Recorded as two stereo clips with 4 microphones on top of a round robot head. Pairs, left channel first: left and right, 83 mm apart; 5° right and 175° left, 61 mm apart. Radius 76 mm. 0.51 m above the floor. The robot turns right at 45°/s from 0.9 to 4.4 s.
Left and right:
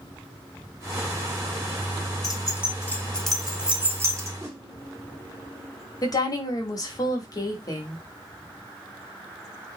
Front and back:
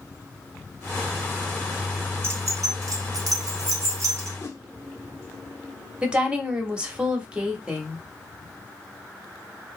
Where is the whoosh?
30° right, 0.9 m.